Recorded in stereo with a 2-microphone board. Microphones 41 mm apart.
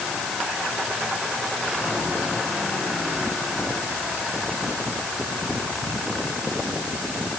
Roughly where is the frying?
I don't hear frying.